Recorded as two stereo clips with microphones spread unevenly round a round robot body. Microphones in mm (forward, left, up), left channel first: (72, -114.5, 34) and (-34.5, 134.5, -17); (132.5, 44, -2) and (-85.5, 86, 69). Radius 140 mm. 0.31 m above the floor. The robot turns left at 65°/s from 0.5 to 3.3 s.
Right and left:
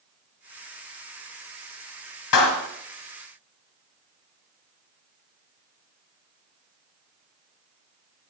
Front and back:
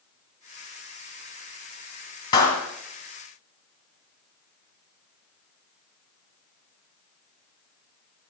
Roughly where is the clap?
Right.